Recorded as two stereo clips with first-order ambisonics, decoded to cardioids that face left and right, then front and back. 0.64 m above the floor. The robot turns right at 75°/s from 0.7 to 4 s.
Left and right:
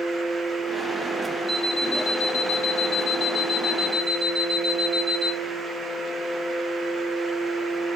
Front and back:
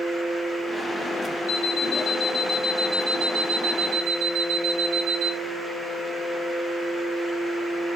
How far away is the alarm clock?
About 1.6 m.